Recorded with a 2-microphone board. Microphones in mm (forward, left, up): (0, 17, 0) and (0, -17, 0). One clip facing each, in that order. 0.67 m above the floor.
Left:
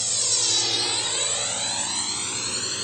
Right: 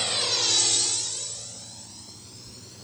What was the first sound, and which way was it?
A drone, 35° right (ahead or behind).